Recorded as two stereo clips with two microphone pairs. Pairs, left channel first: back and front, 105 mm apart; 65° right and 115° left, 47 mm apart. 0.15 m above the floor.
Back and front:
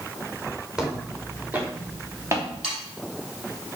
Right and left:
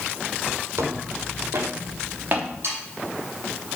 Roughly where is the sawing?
Left.